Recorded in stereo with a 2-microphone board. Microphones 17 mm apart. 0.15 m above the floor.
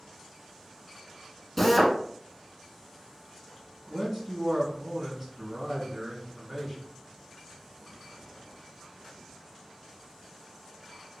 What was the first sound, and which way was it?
A drill, 5° left (ahead or behind).